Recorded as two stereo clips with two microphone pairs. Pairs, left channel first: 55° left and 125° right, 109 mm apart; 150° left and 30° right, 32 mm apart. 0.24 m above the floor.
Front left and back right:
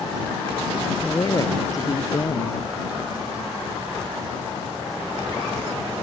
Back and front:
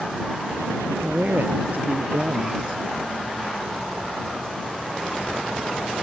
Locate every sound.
1.0 s a man speaking: straight ahead